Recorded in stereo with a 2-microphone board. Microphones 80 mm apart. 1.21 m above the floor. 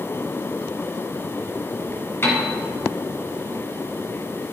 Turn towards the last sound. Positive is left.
turn(degrees=30)  # may be behind; listen again after turning